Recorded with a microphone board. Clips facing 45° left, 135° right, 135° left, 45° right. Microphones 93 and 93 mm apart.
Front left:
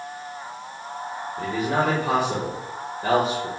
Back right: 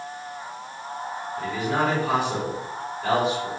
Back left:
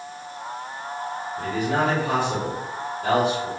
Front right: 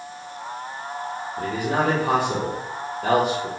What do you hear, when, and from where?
1.4 s a man speaking: 15° right, 1.3 m